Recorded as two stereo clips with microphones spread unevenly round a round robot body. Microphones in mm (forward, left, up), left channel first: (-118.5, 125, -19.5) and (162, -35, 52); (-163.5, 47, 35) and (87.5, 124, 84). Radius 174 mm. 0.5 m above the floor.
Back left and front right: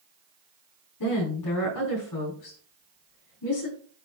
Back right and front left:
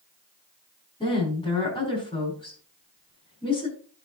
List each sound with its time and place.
1.0 s a woman speaking: 130° left, 5 m